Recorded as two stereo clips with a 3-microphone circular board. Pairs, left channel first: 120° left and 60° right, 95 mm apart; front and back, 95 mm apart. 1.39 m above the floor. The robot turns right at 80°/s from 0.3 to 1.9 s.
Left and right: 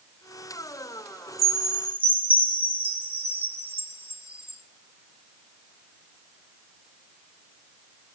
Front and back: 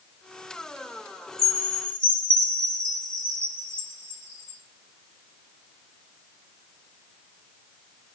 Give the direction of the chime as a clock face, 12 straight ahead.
4 o'clock.